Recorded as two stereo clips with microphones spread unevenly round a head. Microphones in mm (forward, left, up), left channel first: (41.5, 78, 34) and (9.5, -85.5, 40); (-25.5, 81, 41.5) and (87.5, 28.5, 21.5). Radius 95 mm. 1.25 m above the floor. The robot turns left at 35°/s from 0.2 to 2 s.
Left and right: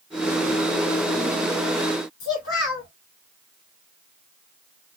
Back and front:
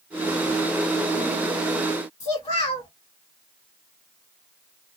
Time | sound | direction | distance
2.2 | a child speaking | 100° left | 1.2 m